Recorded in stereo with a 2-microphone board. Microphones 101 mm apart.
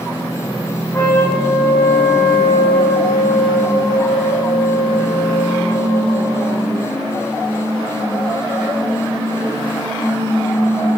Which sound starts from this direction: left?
A trumpet, at 0.9 s.